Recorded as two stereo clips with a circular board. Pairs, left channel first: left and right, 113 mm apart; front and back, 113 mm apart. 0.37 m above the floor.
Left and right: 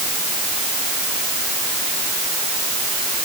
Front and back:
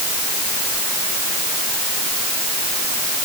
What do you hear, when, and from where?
Only background noise.